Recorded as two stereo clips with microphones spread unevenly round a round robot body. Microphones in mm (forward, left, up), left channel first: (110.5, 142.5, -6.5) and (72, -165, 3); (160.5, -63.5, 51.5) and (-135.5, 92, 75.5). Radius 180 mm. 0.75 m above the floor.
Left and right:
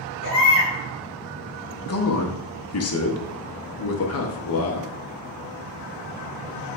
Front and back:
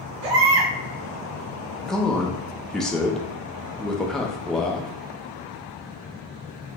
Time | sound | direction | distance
0.2 | a baby crying | 140° left | 1.1 m
1.9 | a man speaking | 55° left | 0.8 m